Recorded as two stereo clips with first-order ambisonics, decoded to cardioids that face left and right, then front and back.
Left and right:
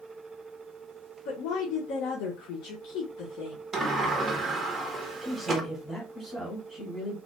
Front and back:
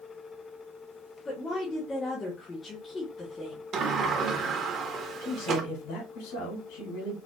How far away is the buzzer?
No buzzer in this recording.